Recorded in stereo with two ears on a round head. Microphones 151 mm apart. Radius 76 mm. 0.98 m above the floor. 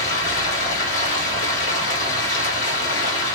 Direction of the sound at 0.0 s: 50° left (ahead or behind).